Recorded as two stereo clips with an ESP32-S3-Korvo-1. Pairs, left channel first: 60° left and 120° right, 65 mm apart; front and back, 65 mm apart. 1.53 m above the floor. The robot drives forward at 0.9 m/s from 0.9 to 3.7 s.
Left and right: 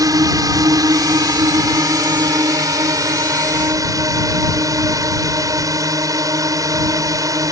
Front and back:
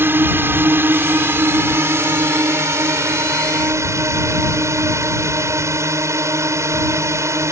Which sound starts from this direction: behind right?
A drone, at 0.0 s.